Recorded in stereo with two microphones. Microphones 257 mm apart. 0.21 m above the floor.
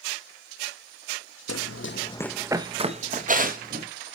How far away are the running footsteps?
About 0.8 m.